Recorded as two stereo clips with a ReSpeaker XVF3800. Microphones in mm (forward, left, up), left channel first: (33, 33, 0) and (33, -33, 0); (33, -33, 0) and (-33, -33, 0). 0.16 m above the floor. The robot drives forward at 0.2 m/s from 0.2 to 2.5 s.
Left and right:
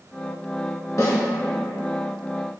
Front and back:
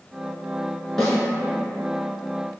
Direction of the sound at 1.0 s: 80° left.